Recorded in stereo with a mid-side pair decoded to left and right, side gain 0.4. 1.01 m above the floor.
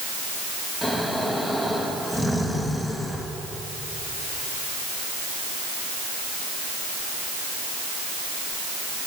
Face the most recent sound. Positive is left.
turn(degrees=0)